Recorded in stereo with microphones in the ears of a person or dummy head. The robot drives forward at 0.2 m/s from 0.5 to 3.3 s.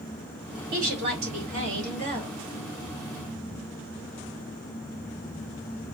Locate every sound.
0.7 s a woman speaking: 50° right (ahead or behind), 2.5 m; by 2.4 s 45° right (ahead or behind), 3 m